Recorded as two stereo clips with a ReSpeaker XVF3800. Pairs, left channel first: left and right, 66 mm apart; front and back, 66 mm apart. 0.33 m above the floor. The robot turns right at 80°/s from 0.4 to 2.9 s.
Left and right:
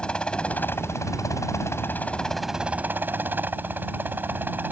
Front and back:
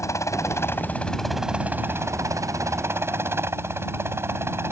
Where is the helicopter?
15° left; by 4.7 s 145° right.